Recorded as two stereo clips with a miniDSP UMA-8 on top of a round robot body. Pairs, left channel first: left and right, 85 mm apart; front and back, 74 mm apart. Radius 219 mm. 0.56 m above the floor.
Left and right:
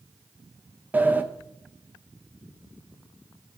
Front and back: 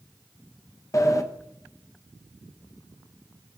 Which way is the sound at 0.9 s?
25° right.